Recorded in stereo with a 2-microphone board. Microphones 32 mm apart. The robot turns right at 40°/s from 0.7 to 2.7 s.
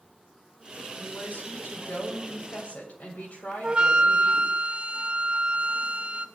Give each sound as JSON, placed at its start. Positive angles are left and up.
{"t": 1.0, "sound": "a woman speaking", "azimuth_deg": 50, "distance_m": 7.5}
{"t": 3.6, "sound": "a flute", "side_deg": -30, "distance_m": 0.6}